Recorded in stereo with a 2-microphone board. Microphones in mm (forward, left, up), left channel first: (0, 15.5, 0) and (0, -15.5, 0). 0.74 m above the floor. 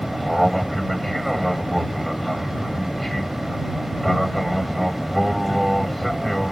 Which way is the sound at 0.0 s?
5° left (ahead or behind).